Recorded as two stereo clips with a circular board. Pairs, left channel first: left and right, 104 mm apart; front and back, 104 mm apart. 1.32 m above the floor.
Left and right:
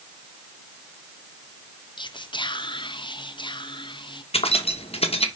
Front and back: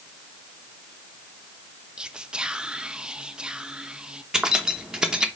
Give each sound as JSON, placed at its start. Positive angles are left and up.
{"t": 2.0, "sound": "whispering", "azimuth_deg": 100, "distance_m": 0.6}
{"t": 4.3, "sound": "keys jangling", "azimuth_deg": 100, "distance_m": 0.9}